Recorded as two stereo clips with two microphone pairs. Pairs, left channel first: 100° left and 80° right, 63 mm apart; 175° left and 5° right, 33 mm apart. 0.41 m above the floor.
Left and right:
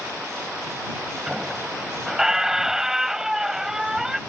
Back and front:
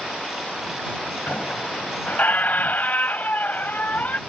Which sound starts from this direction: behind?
A squeak, at 1.3 s.